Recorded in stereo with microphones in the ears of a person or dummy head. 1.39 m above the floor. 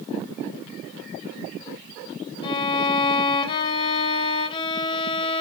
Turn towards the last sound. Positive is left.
turn(degrees=25)  # may be behind; listen again after turning